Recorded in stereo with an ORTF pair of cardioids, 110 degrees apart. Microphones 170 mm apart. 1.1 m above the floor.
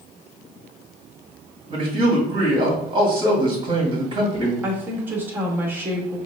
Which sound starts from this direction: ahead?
A woman speaking, at 4.6 s.